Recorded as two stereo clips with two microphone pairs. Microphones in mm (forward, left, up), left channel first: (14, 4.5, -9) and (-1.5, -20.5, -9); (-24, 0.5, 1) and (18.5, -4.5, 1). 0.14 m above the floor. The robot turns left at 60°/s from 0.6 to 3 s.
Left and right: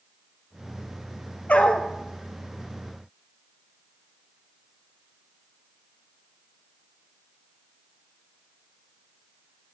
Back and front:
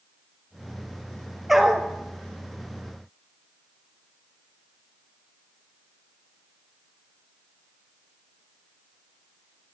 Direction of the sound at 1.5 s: 80° left.